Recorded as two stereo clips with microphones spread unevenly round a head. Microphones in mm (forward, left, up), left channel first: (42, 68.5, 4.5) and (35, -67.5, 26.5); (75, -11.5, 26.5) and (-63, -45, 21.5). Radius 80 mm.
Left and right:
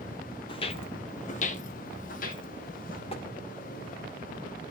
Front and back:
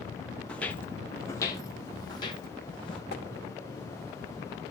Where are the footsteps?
85° left, 1.0 m; by 3.0 s 75° left, 2.0 m.